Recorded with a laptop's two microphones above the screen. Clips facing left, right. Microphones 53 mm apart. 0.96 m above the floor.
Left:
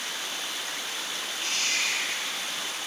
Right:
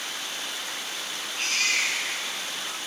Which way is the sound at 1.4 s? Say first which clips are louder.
Right 4 dB; 85° right.